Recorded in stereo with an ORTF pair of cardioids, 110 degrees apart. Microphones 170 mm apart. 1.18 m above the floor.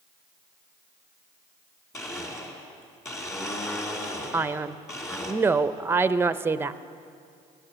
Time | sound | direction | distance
1.9 | a blender | 20° left | 2.5 m
4.3 | a man speaking | 15° right | 0.6 m